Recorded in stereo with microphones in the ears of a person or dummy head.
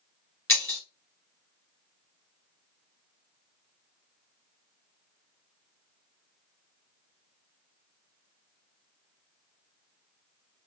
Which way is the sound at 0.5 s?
15° left (ahead or behind).